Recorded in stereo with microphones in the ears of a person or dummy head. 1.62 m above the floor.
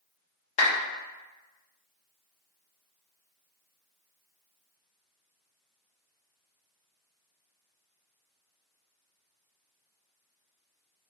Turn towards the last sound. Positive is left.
turn(degrees=50)  # may be behind; listen again after turning